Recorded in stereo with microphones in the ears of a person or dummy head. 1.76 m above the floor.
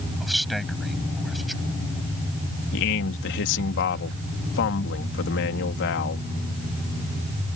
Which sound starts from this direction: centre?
A man speaking, at 0.2 s.